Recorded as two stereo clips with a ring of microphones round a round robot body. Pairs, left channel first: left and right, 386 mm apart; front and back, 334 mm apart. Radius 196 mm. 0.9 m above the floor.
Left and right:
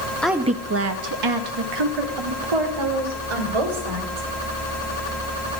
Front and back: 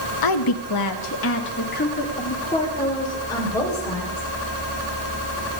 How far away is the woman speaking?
About 1.0 m.